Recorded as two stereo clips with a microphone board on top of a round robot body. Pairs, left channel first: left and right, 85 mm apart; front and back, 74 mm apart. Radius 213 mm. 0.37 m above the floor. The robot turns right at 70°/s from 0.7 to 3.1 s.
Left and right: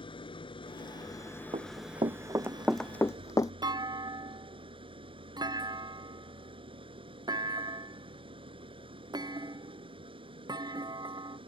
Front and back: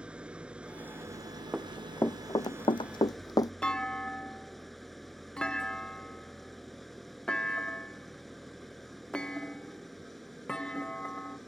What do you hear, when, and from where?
0.0 s an engine running: 105° left; by 11.5 s 85° right
1.5 s running footsteps: 100° right; by 3.5 s 40° left
3.6 s a clunk: 75° right